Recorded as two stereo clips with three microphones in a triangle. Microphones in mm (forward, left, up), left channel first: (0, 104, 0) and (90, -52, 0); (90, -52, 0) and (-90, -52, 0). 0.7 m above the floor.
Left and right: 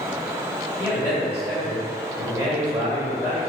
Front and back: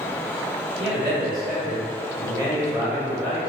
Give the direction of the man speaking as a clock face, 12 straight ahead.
6 o'clock.